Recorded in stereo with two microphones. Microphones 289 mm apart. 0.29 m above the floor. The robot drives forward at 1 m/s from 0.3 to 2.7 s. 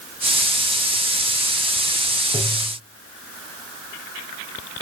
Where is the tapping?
10° right (ahead or behind), 3.5 m.